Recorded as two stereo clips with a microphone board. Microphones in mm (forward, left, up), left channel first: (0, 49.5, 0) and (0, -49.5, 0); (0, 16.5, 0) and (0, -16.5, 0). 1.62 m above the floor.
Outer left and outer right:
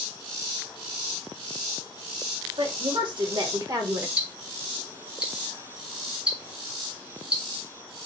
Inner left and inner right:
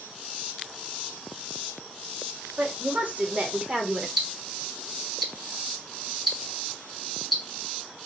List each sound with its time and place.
2.6 s a woman speaking: 60° right (ahead or behind), 2.0 m; by 4.1 s 25° right (ahead or behind), 0.9 m
4.2 s ticking: 10° right (ahead or behind), 1.5 m